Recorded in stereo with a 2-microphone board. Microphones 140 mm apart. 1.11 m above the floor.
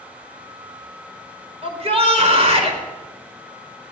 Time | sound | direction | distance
1.6 | a shout | 45° right (ahead or behind) | 4.5 m